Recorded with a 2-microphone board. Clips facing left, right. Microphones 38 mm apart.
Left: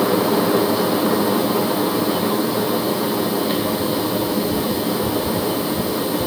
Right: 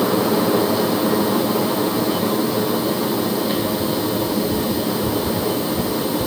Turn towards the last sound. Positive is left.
No sound to turn to.